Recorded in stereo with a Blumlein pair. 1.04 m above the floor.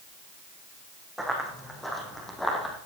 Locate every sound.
1.2 s running footsteps: straight ahead, 4 m; by 2.8 s 10° left, 2.5 m